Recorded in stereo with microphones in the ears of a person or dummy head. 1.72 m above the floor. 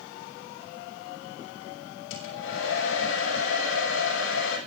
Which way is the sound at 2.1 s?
80° left.